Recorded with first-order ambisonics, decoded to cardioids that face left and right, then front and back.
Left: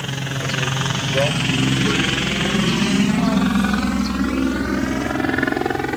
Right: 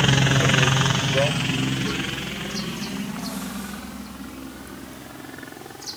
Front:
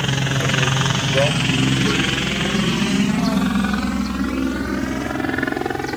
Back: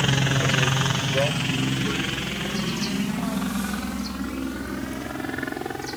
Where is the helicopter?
80° right; by 6.0 s 60° left.